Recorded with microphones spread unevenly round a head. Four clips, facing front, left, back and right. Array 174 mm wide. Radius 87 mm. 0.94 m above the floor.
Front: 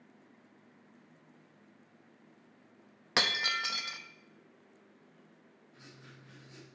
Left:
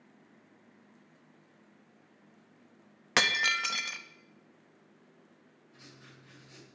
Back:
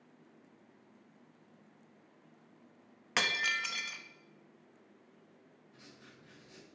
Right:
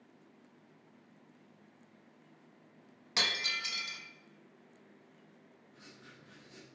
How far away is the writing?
About 4 m.